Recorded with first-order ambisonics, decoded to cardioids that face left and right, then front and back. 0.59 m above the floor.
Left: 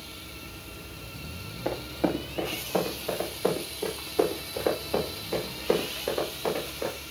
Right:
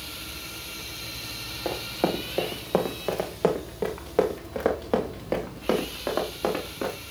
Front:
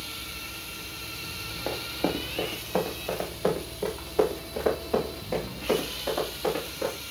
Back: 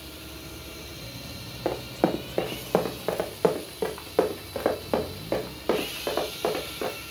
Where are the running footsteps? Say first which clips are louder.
Right 1 dB, back 4 dB; 165° right, 1.5 m; by 6.9 s 120° right, 4 m.